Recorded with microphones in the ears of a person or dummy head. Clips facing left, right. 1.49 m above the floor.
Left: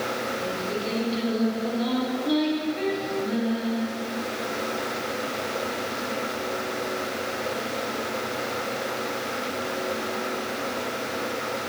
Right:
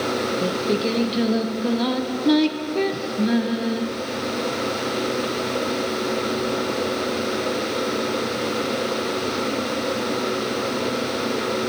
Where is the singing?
65° right (ahead or behind), 0.8 m.